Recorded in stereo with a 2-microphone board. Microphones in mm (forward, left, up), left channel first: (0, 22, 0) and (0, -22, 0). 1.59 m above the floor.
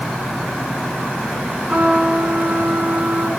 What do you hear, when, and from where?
1.7 s a trumpet: 45° right (ahead or behind), 7 m